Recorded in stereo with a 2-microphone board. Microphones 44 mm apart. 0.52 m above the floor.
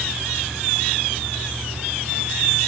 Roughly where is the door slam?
I don't hear a door slam.